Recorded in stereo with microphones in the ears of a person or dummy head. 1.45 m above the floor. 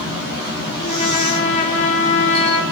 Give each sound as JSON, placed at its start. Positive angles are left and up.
{"t": 0.8, "sound": "a trumpet", "side_deg": 40, "distance_m": 0.6}